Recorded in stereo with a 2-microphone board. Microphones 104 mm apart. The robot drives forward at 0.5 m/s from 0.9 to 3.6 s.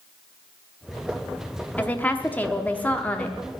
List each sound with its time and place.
1.8 s a woman speaking: 15° left (ahead or behind), 0.8 m